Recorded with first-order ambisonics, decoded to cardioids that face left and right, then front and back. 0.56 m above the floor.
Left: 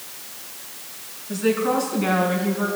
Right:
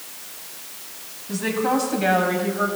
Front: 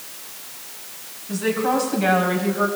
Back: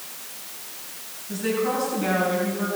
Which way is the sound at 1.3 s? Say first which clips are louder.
Left 1 dB, front 3 dB; 60° right.